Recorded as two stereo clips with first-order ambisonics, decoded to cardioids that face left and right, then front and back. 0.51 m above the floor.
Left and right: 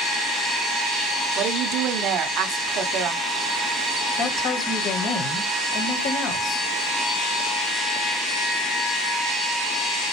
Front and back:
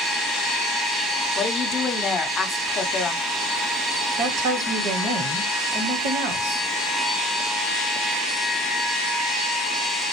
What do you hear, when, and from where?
1.4 s a woman speaking: 65° right, 1.0 m
4.2 s a woman speaking: 140° left, 3 m